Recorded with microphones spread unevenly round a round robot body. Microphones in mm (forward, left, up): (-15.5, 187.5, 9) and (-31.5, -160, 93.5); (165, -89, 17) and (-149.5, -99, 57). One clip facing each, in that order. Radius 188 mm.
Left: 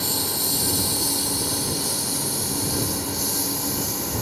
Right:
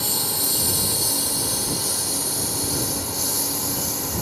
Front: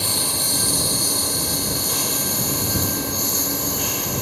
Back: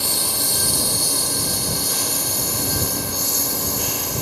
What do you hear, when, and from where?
0.0 s a lawn mower: 125° right